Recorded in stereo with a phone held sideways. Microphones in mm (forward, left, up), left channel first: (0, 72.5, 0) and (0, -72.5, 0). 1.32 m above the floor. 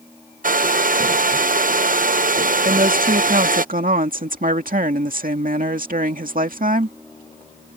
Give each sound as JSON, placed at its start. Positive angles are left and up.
{"t": 0.4, "sound": "a hair dryer", "side_deg": -70}
{"t": 2.6, "sound": "a woman speaking", "side_deg": -75}